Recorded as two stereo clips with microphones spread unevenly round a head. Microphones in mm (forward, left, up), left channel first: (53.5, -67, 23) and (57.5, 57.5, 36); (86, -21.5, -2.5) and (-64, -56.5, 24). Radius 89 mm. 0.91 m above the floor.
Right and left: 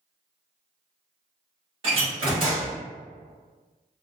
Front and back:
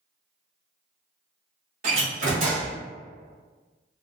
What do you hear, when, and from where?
1.8 s a door slam: 140° left, 0.8 m